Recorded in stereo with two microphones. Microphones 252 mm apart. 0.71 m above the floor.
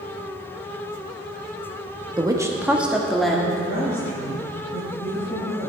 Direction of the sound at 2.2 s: 15° right (ahead or behind).